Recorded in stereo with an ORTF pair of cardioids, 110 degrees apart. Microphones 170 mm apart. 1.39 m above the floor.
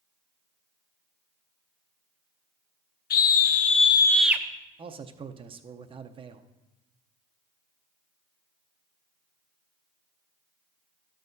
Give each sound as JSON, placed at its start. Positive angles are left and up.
{"t": 3.1, "sound": "a scream", "azimuth_deg": 60, "distance_m": 1.2}
{"t": 4.8, "sound": "a man speaking", "azimuth_deg": -30, "distance_m": 0.6}